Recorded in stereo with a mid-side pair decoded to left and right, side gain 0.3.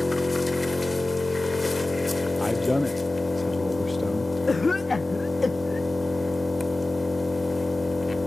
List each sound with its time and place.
0.0 s an engine running: 25° left, 2.5 m
2.4 s a man speaking: 15° left, 0.8 m
4.5 s a cough: 35° left, 0.6 m